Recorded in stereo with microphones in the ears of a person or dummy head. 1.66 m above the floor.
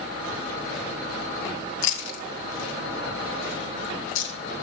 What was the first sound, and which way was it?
Chewing, 70° left (ahead or behind).